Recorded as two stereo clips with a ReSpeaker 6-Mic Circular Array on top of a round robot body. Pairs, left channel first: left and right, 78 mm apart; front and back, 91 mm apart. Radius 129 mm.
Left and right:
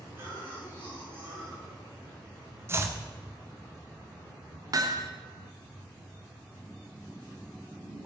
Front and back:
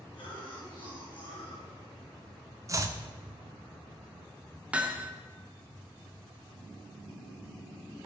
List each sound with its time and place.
0.1 s a cough: 30° right, 7 m
2.7 s chopping: 140° right, 1.5 m
4.7 s hammering: 110° right, 1.6 m